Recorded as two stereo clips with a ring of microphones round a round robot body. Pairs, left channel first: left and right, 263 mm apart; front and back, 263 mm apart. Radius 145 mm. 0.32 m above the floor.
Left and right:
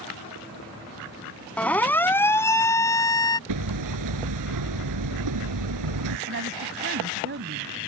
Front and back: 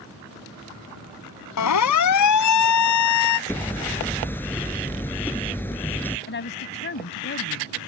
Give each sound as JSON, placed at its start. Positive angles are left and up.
{"t": 1.6, "sound": "a siren", "azimuth_deg": 5}
{"t": 3.5, "sound": "hammering", "azimuth_deg": -80}
{"t": 6.3, "sound": "a woman speaking", "azimuth_deg": -40}